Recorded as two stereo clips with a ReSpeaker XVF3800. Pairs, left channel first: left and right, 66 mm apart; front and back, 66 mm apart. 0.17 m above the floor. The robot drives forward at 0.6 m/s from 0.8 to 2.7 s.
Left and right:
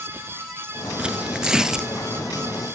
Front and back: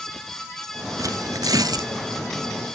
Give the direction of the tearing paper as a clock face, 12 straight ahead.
5 o'clock.